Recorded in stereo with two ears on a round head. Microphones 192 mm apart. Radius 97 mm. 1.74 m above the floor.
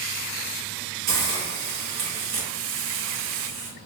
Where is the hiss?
40° right (ahead or behind), 1.9 m.